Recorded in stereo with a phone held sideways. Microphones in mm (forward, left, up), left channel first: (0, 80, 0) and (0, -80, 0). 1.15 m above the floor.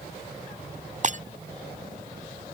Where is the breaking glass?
50° right (ahead or behind).